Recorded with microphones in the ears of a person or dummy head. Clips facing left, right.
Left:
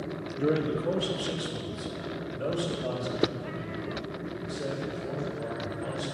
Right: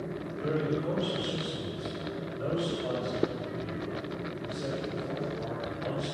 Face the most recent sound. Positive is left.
turn(degrees=30)  # may be behind; listen again after turning